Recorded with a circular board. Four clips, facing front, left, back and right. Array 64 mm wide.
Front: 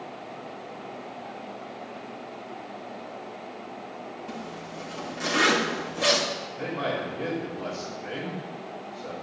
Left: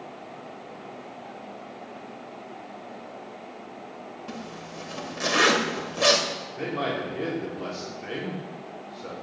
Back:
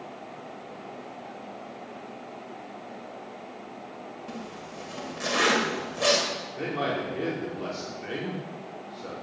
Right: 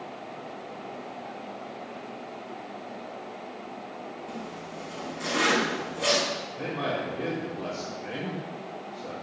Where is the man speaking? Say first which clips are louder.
Left 3 dB, back 1 dB; 140° left, 4 m.